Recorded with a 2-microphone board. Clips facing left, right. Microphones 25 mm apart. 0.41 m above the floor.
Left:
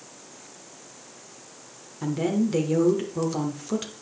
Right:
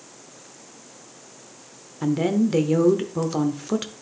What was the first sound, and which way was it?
A woman speaking, 20° right (ahead or behind).